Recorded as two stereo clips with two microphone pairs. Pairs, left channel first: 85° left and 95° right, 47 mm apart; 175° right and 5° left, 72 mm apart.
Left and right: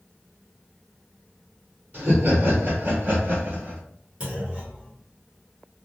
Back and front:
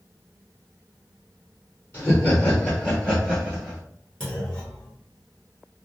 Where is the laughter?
125° right, 1.7 m; by 3.8 s 75° right, 1.2 m.